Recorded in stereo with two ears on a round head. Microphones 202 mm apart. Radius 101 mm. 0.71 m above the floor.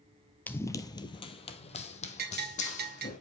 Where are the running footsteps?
10° left (ahead or behind), 0.7 m; by 3.2 s 35° left (ahead or behind), 1.9 m.